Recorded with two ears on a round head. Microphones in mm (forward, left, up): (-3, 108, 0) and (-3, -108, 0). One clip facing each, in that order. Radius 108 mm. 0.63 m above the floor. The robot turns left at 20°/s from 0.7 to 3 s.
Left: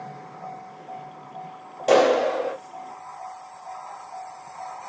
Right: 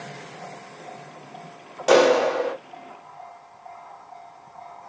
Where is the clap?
10° right (ahead or behind), 1.1 m; by 2.5 s 15° right (ahead or behind), 1.1 m.